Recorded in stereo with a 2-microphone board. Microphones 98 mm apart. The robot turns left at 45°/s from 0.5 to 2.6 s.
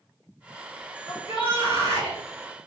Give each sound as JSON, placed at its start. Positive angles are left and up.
{"t": 1.1, "sound": "a shout", "azimuth_deg": 120, "distance_m": 1.8}